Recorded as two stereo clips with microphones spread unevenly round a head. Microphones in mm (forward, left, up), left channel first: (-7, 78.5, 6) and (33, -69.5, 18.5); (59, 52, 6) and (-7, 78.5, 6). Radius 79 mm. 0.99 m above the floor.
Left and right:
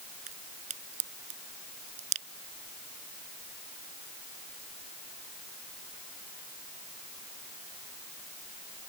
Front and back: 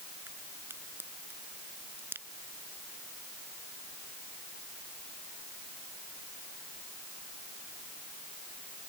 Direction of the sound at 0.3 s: 125° right.